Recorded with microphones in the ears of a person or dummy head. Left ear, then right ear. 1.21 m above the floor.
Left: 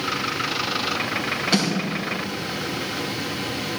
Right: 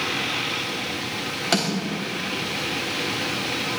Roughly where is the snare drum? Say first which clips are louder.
Right 1 dB; right.